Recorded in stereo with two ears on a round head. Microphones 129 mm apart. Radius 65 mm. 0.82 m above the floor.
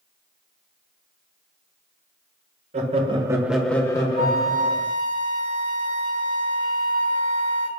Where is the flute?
70° right (ahead or behind), 1.3 m.